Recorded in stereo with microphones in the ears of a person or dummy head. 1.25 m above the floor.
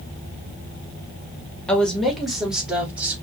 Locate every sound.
1.7 s a woman speaking: 5° left (ahead or behind), 2 m; by 3.1 s 10° right (ahead or behind), 3 m